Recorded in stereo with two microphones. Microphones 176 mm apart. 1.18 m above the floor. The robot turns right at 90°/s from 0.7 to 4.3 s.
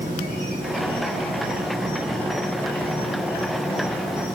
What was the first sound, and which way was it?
An insect, 125° right.